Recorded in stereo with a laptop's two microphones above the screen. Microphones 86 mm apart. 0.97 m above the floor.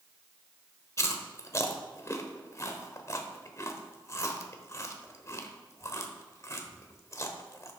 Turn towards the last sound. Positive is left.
turn(degrees=35)  # may be behind; listen again after turning